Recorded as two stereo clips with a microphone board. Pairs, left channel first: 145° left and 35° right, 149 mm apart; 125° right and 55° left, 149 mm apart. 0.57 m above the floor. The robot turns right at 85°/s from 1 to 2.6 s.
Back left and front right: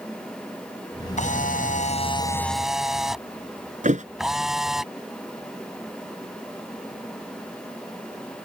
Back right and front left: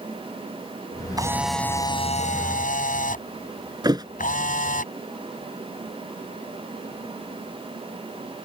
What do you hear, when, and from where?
1.2 s a camera shutter: 115° left; by 4.8 s 120° right
3.8 s a thud: 5° right